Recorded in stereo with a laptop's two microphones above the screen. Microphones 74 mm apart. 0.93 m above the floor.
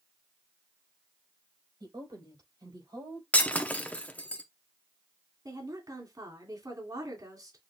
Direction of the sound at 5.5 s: 55° right (ahead or behind).